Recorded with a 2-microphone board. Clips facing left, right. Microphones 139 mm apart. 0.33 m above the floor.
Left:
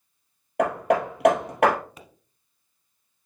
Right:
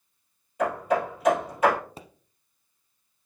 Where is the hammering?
75° left (ahead or behind), 2 m.